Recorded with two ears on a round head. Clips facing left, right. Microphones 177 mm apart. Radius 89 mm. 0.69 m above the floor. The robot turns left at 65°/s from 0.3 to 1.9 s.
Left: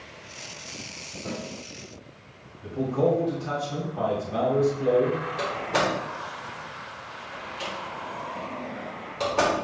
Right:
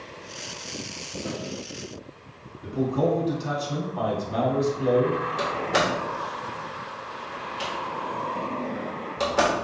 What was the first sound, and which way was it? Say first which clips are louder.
A snare drum: right 1 dB; 30° right (ahead or behind).